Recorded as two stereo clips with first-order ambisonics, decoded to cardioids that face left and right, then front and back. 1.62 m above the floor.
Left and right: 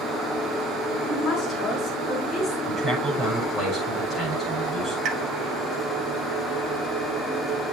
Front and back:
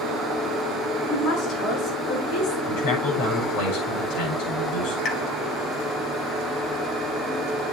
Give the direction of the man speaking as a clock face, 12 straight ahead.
12 o'clock.